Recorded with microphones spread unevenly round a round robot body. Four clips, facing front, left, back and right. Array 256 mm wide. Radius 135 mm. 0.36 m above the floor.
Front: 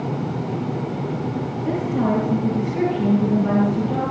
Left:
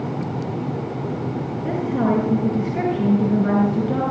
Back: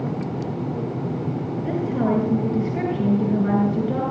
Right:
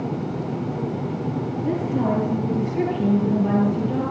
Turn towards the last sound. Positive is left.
turn(degrees=110)